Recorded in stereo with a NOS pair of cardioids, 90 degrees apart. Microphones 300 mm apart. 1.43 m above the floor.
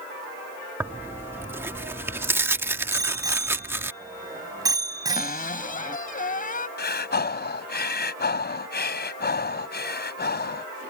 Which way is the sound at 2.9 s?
10° right.